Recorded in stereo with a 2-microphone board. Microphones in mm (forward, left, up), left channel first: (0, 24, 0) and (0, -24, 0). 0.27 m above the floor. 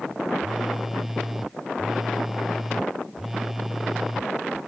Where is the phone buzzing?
10° right (ahead or behind).